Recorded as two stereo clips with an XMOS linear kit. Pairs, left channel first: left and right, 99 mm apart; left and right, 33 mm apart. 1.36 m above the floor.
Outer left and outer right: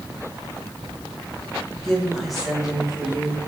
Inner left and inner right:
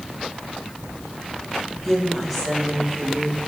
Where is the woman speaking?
5° left (ahead or behind), 3 m; by 3.4 s 5° right (ahead or behind), 4.5 m.